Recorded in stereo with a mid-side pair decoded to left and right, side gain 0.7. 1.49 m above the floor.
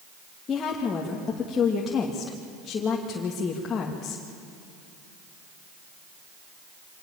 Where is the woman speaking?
30° left, 2.5 m.